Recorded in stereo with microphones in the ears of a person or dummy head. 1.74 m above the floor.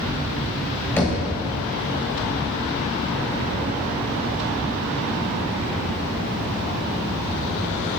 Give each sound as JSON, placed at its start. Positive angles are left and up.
{"t": 1.0, "sound": "knocking", "side_deg": 15, "distance_m": 1.3}